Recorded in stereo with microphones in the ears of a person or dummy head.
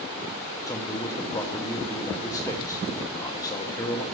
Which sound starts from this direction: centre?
A man speaking, at 0.7 s.